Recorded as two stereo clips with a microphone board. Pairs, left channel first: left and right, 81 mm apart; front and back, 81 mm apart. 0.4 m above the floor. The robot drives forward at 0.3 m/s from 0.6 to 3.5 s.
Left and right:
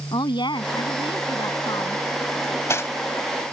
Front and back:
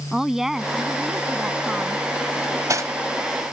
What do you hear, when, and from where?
0.1 s a woman speaking: 95° left; by 2.0 s 105° left
2.4 s cutlery clinking: 140° left; by 2.9 s 145° left